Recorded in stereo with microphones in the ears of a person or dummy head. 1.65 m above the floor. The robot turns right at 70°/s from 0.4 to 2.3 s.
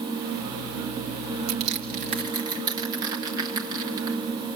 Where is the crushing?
75° right (ahead or behind), 2.0 m; by 4.2 s 20° right (ahead or behind), 2.0 m.